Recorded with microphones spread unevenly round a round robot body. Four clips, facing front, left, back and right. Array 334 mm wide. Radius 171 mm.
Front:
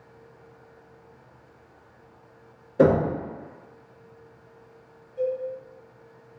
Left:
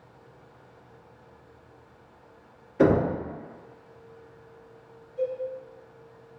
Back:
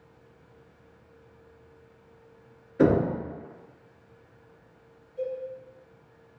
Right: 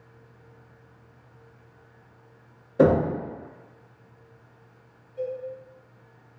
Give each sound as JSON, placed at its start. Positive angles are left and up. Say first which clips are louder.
{"t": 2.8, "sound": "knocking", "louder": "right 2 dB, front 2 dB", "azimuth_deg": -55, "distance_m": 1.2}
{"t": 5.2, "sound": "a cowbell", "louder": "left 2 dB, front 5 dB", "azimuth_deg": -25, "distance_m": 1.5}